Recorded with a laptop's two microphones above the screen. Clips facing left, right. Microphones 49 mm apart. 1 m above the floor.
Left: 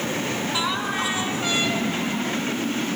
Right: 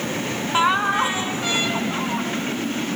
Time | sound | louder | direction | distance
0.5 | laughter | right 10 dB | 35° right (ahead or behind) | 1.8 m